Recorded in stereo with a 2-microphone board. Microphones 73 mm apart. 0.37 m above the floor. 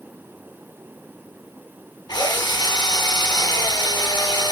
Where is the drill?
70° left (ahead or behind), 3 m.